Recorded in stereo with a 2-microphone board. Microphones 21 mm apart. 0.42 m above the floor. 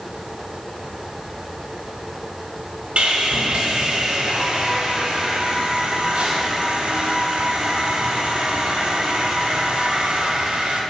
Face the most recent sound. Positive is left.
turn(degrees=-65)  # may be behind; listen again after turning